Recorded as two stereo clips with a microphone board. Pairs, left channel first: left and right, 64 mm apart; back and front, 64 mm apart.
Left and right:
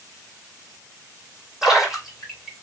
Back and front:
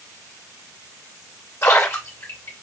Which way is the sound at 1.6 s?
165° right.